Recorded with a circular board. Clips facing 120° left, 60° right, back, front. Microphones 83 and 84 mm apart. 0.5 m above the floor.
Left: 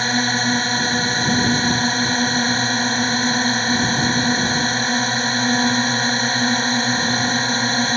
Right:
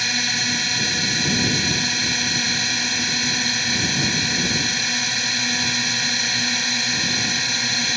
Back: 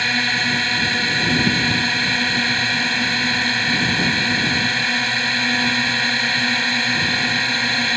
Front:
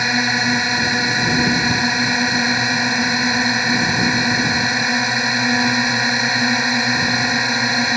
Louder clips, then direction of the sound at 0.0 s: Left 7 dB, front 3 dB; 70° left.